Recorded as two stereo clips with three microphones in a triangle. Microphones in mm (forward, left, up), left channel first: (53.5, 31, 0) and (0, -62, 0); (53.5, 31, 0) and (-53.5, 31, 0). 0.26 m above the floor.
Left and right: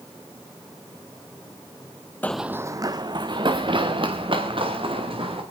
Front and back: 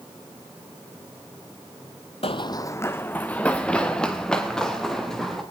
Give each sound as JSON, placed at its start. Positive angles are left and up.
{"t": 2.2, "sound": "running footsteps", "azimuth_deg": -10, "distance_m": 0.5}